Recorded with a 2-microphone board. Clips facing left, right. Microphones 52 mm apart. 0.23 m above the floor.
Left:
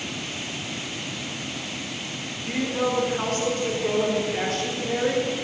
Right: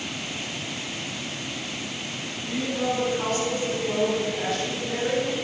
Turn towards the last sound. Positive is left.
turn(degrees=75)  # may be behind; listen again after turning